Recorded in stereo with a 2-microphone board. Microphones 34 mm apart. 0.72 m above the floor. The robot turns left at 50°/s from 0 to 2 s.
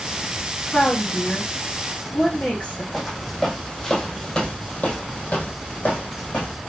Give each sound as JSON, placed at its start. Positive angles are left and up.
{"t": 0.7, "sound": "a woman speaking", "azimuth_deg": 125, "distance_m": 1.0}
{"t": 2.9, "sound": "footsteps", "side_deg": -5, "distance_m": 1.4}